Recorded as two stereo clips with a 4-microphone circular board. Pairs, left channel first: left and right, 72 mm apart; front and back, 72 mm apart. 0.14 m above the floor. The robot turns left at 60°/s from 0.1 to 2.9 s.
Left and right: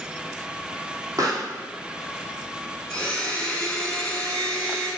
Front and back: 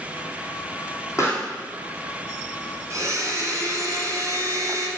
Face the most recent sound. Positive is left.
turn(degrees=165)